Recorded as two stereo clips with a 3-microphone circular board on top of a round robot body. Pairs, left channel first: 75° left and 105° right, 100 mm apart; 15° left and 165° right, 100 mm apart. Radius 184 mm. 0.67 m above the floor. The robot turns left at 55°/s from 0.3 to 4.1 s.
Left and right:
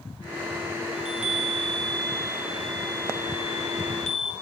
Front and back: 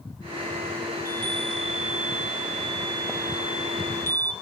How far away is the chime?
About 1.0 m.